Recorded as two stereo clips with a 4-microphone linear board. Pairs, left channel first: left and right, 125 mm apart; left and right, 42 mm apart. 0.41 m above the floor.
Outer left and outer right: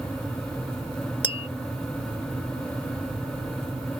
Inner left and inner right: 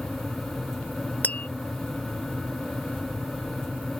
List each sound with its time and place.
1.2 s tapping: 40° left (ahead or behind)